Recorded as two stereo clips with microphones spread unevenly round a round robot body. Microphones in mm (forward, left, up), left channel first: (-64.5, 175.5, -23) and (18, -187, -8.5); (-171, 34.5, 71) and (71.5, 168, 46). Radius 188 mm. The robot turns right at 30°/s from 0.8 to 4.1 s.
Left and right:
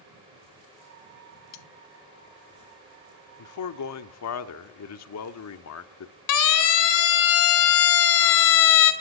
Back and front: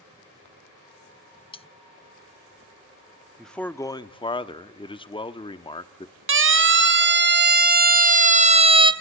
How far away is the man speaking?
About 1.1 m.